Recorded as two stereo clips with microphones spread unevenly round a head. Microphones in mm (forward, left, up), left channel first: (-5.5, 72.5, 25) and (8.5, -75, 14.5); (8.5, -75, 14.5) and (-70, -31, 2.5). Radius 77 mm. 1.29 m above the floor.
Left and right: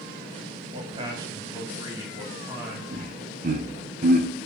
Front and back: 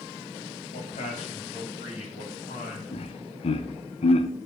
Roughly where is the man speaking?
Ahead right.